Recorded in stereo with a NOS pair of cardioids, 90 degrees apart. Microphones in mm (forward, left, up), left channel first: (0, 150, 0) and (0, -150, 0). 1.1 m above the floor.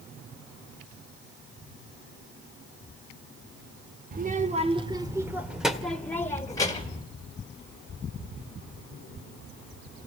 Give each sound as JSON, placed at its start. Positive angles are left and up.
{"t": 4.1, "sound": "a child speaking", "azimuth_deg": -30, "distance_m": 1.8}